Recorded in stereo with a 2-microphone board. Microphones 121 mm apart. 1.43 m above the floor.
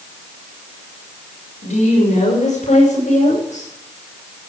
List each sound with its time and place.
1.6 s a woman speaking: 85° left, 5.5 m